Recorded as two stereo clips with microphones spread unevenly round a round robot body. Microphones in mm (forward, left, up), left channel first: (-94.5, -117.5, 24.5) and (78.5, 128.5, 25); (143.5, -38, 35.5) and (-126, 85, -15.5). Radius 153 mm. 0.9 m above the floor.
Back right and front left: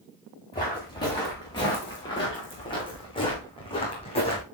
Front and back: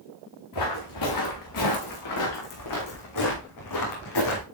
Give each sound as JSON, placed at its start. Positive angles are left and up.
{"t": 0.5, "sound": "footsteps", "azimuth_deg": -50, "distance_m": 4.5}